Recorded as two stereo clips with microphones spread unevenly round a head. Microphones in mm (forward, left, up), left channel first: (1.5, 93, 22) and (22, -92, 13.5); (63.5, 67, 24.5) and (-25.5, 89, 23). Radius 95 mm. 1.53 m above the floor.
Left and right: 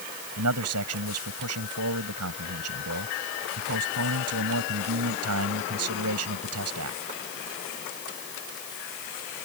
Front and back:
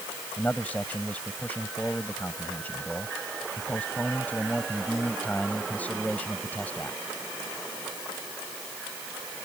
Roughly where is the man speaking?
Right.